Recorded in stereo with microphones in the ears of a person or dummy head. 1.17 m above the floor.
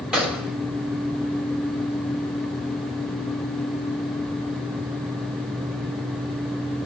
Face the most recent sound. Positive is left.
turn(degrees=-5)  # may be behind; listen again after turning